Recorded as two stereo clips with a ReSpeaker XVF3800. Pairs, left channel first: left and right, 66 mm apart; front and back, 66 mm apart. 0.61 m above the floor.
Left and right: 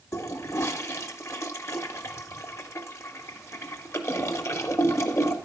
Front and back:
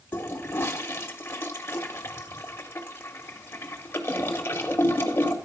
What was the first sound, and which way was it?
A toilet flushing, 50° left.